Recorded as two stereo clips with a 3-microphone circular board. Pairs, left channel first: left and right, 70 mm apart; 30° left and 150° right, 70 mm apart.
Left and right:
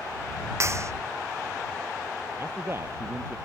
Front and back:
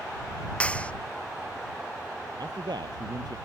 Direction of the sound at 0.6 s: 40° right.